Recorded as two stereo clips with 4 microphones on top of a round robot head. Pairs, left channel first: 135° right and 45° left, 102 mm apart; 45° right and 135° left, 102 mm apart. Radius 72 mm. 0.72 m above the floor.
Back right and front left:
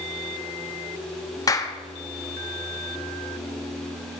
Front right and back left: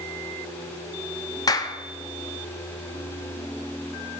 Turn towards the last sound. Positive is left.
turn(degrees=-90)